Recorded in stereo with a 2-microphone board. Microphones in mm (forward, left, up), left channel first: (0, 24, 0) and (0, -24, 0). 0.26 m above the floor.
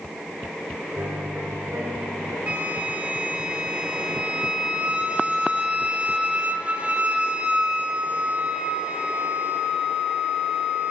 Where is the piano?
70° right (ahead or behind), 4 m.